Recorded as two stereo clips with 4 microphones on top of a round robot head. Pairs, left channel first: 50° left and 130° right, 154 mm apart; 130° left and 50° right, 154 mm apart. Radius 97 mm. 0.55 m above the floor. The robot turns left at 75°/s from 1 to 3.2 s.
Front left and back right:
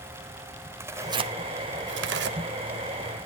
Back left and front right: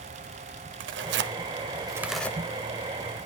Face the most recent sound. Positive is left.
turn(degrees=140)